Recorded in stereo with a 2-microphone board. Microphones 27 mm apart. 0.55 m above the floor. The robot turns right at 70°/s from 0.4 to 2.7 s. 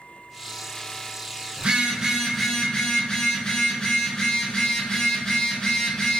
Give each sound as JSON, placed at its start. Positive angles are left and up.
{"t": 1.6, "sound": "a phone buzzing", "azimuth_deg": -55, "distance_m": 0.9}